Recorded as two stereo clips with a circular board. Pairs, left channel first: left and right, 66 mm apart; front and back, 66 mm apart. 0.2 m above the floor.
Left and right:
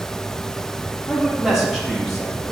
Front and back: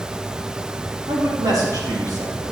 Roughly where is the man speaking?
Behind.